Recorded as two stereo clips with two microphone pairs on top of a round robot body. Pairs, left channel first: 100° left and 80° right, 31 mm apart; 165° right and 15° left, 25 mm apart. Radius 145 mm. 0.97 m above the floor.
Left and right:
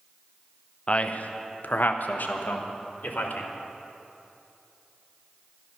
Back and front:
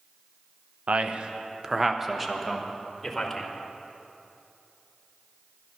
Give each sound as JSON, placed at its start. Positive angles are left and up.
{"t": 0.9, "sound": "a man speaking", "azimuth_deg": 55, "distance_m": 0.8}